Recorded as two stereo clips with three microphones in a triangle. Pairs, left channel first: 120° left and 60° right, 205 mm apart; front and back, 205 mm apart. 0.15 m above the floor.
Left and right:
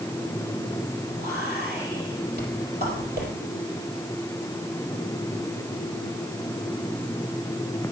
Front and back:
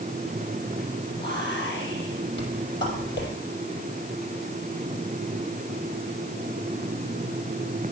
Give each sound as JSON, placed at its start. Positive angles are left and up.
{"t": 1.2, "sound": "whispering", "azimuth_deg": -25, "distance_m": 4.0}